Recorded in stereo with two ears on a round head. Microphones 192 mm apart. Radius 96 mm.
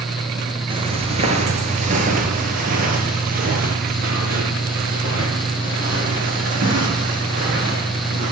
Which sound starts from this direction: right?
Footsteps, at 0.7 s.